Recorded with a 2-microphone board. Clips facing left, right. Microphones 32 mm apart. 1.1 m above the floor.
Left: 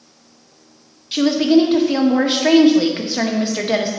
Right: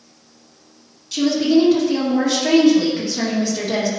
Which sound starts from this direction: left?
A woman speaking, at 1.1 s.